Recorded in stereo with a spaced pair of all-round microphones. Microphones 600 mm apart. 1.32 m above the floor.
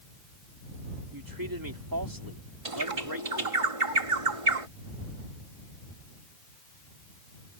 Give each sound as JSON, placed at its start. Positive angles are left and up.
{"t": 1.1, "sound": "a man speaking", "side_deg": -35}
{"t": 2.6, "sound": "a bird", "side_deg": -60}